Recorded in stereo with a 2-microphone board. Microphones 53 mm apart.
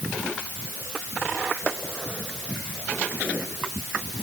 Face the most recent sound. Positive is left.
No sound to turn to.